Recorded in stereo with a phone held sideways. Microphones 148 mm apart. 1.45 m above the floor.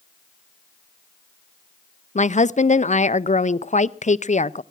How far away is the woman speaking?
About 0.5 m.